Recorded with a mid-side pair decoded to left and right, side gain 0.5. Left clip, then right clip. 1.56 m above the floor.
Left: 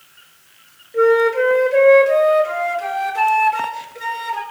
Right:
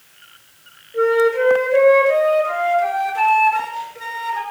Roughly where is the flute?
Ahead.